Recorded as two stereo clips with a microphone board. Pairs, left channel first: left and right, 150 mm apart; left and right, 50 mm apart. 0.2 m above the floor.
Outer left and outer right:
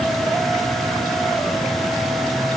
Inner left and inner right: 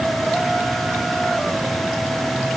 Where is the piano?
I don't hear a piano.